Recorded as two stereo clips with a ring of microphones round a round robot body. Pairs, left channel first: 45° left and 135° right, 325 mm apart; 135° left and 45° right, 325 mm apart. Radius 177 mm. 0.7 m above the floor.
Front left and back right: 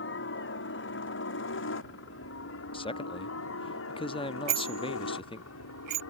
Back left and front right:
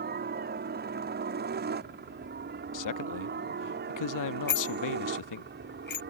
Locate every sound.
0.0 s a helicopter: 5° left; by 6.1 s 10° left
2.7 s a man speaking: 120° left
4.5 s a bicycle bell: 165° right